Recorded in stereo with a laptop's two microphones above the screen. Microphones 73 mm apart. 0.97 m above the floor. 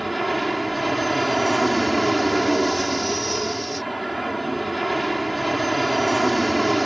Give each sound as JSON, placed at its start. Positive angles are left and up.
{"t": 0.0, "sound": "an aircraft", "side_deg": 0}